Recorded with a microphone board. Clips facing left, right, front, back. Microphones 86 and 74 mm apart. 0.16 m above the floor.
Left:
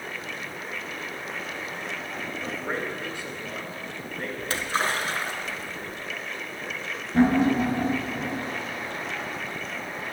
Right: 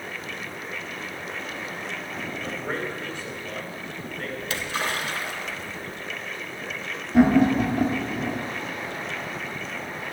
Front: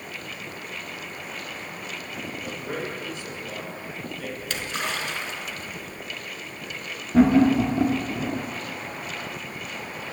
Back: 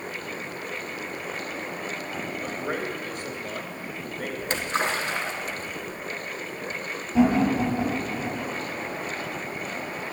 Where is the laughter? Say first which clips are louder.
Right 3 dB, front 4 dB; 10° right, 1.7 m.